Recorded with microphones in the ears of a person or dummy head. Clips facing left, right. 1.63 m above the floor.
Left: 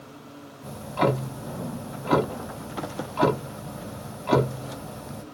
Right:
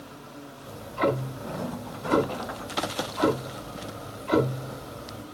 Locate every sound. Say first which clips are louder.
0.6 s ticking: left 2 dB; 70° left (ahead or behind), 0.9 m